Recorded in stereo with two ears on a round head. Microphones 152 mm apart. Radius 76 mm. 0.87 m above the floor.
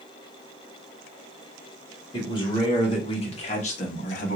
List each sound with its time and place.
2.1 s a man speaking: 25° left (ahead or behind), 2 m; by 4.4 s 50° left (ahead or behind), 1.2 m